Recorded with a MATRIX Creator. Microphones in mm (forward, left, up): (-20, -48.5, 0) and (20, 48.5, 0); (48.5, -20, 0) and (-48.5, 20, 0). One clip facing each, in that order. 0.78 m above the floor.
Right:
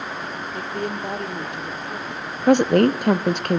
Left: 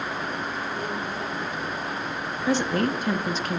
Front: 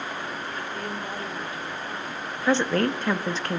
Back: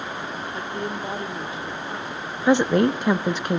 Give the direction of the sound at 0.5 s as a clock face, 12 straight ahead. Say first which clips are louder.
Right 2 dB, back 3 dB; 5 o'clock.